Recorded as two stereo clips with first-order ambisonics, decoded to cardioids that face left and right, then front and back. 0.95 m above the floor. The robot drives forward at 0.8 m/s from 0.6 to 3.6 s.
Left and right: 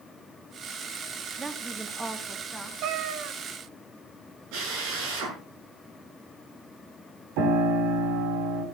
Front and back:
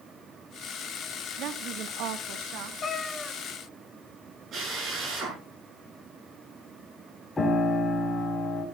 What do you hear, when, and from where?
1.4 s a woman speaking: 160° right, 0.7 m; by 2.7 s 175° right, 1.6 m
2.8 s a cat meowing: 65° right, 0.8 m; by 3.4 s 100° right, 0.8 m
4.5 s a drill: 120° right, 7 m
7.4 s a piano: 80° right, 4 m